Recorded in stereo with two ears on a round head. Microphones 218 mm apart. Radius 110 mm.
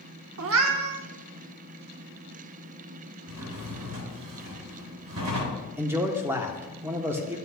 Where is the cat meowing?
60° right (ahead or behind), 0.7 m.